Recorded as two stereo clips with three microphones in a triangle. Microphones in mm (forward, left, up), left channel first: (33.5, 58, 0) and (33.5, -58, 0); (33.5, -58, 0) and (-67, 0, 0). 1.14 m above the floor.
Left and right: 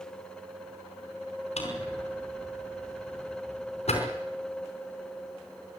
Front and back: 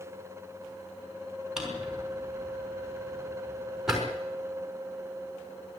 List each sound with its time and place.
1.6 s a drawer: 65° left, 5 m